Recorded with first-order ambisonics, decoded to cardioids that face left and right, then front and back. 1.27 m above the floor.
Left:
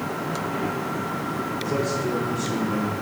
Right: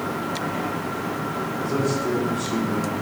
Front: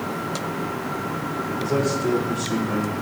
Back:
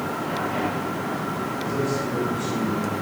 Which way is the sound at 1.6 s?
20° left.